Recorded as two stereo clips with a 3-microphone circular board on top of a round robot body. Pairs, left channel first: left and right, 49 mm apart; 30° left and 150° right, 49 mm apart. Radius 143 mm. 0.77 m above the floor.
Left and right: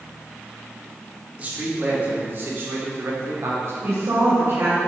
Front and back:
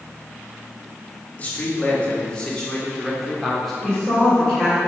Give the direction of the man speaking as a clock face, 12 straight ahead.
1 o'clock.